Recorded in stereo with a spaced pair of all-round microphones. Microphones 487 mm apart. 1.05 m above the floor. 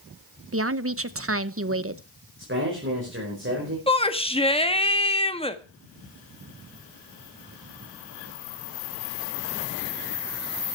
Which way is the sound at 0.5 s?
30° right (ahead or behind).